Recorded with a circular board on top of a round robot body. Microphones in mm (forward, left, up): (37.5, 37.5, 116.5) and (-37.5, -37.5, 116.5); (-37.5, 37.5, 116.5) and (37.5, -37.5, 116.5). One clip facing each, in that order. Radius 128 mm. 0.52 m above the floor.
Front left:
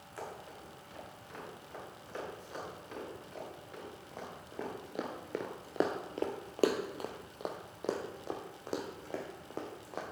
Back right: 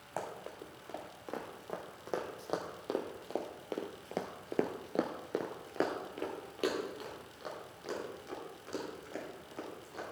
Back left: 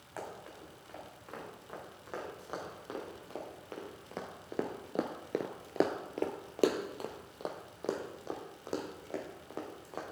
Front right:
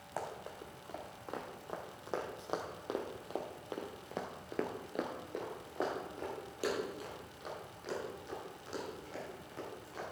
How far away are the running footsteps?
About 3 m.